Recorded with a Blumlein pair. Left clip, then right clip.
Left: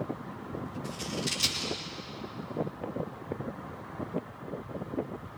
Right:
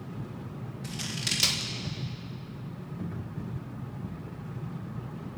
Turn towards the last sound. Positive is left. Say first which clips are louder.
# right 3 dB
turn(degrees=-70)